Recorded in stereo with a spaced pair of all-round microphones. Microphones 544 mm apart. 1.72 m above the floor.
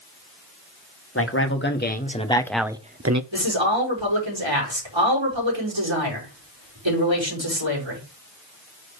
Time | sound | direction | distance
1.1 | a man speaking | 25° left (ahead or behind) | 1.9 m
3.3 | a man speaking | 55° right (ahead or behind) | 5 m